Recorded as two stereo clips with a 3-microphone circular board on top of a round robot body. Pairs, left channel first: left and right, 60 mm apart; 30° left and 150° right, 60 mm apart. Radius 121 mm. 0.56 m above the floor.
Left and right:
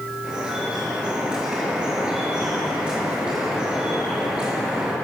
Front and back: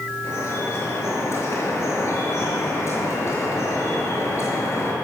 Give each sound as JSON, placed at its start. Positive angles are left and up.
{"t": 0.2, "sound": "dripping", "azimuth_deg": -10, "distance_m": 6.0}